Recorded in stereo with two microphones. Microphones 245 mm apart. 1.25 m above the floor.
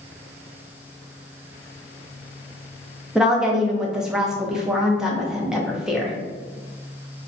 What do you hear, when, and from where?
3.1 s a woman speaking: centre (ahead or behind), 0.5 m